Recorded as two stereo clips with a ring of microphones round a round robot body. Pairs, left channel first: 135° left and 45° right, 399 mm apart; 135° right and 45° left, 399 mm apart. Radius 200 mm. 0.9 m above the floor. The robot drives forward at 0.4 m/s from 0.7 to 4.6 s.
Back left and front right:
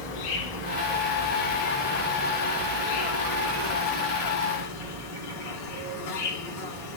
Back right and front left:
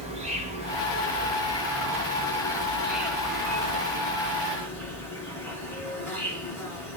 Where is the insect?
120° left, 3 m; by 7.0 s 140° left, 4 m.